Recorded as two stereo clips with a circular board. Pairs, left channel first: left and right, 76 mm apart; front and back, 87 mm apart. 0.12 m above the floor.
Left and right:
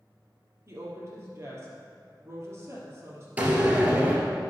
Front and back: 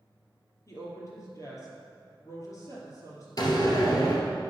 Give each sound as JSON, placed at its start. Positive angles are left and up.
{"t": 0.7, "sound": "a woman speaking", "azimuth_deg": -45, "distance_m": 3.0}
{"t": 3.4, "sound": "a door slam", "azimuth_deg": -25, "distance_m": 1.9}